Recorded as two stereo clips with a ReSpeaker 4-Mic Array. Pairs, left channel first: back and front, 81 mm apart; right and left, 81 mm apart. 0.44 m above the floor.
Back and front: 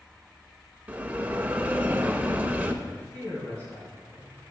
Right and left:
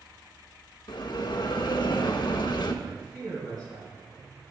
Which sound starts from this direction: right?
A bell, at 0.9 s.